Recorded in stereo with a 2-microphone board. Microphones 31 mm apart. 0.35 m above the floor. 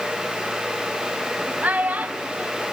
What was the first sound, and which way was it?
A child speaking, 60° right (ahead or behind).